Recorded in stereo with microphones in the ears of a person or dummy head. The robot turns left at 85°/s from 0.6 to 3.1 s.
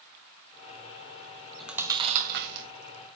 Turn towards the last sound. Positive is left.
turn(degrees=-120)